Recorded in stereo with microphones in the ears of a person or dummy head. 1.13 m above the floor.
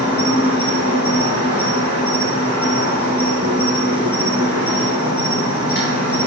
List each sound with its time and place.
0.0 s an insect: 40° left (ahead or behind), 1.2 m